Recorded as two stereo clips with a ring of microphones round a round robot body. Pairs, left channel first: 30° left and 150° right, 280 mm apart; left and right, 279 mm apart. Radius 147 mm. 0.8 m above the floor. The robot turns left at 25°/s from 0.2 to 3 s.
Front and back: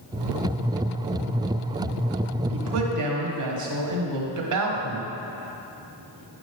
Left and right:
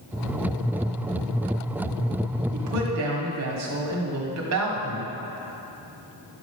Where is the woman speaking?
115° right, 1.7 m; by 5.1 s 125° right, 1.7 m.